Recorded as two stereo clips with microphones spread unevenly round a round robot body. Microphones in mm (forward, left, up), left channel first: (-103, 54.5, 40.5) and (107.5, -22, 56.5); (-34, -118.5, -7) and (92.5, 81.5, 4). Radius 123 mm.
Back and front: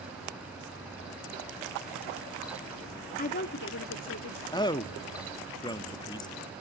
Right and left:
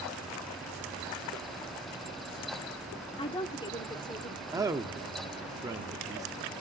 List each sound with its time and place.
3.2 s a woman speaking: straight behind, 0.9 m; by 4.4 s 165° left, 1.6 m
4.5 s a man speaking: 125° left, 0.8 m